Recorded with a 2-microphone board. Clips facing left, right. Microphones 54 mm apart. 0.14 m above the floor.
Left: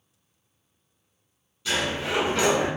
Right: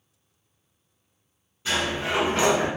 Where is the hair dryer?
I don't hear a hair dryer.